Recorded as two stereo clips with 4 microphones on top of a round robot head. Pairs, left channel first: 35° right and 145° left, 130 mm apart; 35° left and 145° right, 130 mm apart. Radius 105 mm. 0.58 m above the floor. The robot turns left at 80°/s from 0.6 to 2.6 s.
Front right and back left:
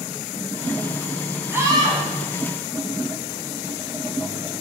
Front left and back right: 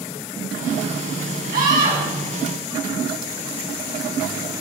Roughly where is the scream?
Behind right.